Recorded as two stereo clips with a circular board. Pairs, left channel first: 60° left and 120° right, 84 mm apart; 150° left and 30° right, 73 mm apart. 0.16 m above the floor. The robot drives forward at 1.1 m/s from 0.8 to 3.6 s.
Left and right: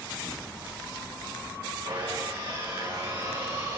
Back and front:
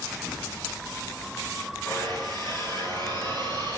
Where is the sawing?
150° right, 9.5 m; by 3.8 s 155° right, 11 m.